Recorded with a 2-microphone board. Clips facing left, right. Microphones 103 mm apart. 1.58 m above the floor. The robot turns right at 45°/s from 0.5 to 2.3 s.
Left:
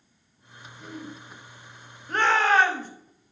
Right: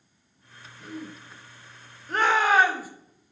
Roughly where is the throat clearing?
Centre.